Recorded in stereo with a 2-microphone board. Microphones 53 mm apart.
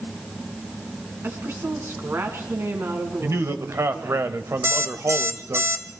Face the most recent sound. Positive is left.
turn(degrees=-60)  # may be behind; listen again after turning